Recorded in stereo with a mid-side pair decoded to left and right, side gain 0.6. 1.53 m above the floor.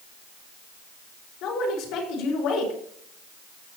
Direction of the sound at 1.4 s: 65° left.